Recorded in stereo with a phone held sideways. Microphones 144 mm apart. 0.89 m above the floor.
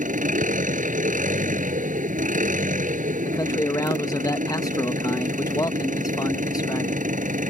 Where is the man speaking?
25° left (ahead or behind).